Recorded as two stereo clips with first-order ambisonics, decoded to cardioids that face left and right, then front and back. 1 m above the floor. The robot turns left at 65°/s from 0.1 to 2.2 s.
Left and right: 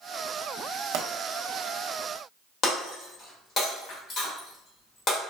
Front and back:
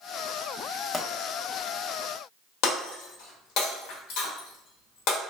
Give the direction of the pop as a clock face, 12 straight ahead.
3 o'clock.